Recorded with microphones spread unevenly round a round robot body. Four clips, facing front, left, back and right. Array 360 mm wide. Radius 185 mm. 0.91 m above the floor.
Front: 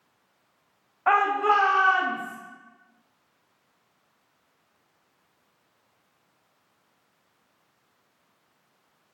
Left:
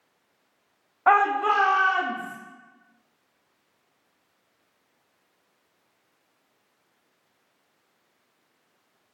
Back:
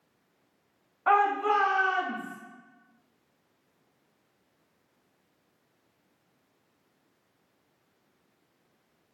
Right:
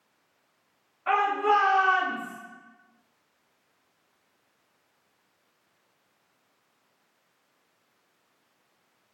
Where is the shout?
75° left, 0.9 m; by 2.4 s 35° left, 2 m.